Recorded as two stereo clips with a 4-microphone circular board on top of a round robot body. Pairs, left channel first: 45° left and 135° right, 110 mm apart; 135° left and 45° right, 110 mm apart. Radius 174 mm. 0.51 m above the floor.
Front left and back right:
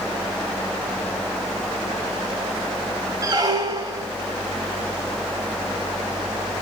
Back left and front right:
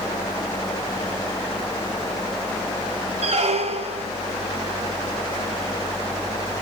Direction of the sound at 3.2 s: 80° right.